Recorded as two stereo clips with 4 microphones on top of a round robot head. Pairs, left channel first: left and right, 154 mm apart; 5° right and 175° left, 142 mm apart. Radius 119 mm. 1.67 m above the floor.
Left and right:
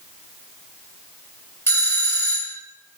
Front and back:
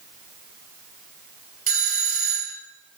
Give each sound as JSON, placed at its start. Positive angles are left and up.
{"t": 1.7, "sound": "a doorbell", "azimuth_deg": 165, "distance_m": 2.0}